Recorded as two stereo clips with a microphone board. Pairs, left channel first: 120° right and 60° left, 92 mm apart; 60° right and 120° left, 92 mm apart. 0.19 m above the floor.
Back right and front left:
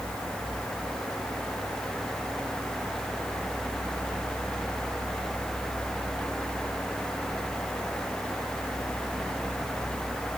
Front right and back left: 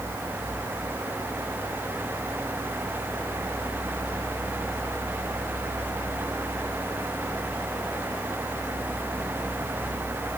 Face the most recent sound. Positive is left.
No sound to turn to.